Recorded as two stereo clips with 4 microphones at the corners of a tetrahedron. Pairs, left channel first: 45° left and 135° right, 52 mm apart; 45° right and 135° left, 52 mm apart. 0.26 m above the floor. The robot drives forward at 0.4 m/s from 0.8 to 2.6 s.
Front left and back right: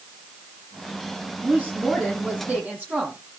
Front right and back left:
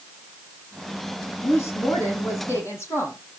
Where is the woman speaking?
70° right, 9.5 m.